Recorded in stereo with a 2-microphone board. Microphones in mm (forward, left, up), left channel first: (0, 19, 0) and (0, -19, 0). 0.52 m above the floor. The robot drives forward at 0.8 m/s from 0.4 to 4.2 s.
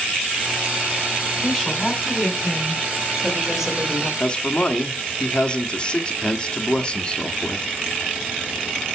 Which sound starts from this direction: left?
A man speaking, at 4.2 s.